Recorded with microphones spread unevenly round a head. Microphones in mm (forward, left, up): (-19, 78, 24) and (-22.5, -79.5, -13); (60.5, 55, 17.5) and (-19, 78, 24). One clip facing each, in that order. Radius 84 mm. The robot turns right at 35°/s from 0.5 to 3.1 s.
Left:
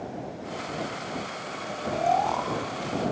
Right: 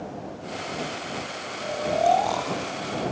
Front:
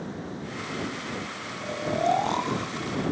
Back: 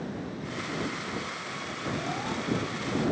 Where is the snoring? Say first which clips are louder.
Right 5 dB, front 9 dB; 60° right; by 3.0 s 15° right.